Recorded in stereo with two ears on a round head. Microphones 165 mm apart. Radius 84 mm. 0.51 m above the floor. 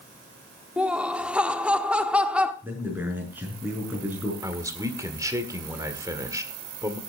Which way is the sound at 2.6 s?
10° right (ahead or behind).